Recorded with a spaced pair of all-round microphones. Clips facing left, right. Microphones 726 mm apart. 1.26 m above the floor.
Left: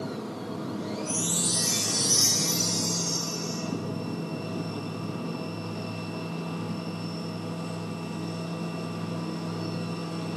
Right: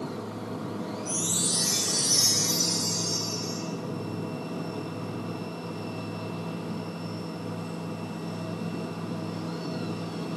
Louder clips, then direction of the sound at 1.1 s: Left 1 dB; 60° left (ahead or behind).